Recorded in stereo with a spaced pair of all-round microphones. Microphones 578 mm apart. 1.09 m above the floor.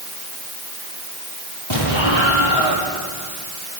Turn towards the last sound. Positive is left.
turn(degrees=55)  # may be behind; listen again after turning